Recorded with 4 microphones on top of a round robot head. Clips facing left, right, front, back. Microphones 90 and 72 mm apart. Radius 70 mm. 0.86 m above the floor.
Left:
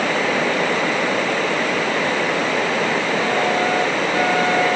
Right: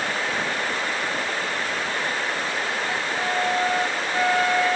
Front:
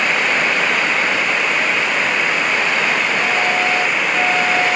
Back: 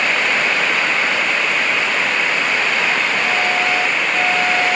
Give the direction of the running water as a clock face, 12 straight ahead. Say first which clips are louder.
Left 7 dB, front 1 dB; 9 o'clock.